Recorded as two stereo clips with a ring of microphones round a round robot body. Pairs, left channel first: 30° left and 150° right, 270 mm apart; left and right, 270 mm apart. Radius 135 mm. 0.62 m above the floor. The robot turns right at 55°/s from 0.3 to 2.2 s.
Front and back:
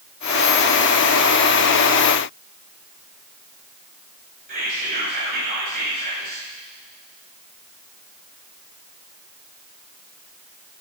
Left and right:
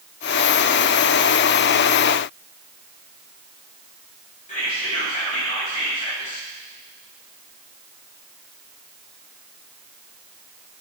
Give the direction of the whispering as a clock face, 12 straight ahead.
7 o'clock.